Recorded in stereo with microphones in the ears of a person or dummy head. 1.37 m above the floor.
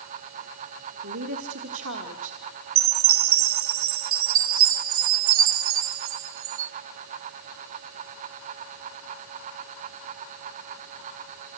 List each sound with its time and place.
1.0 s a woman speaking: 70° right (ahead or behind), 1.9 m
2.8 s a chime: 70° right (ahead or behind), 0.6 m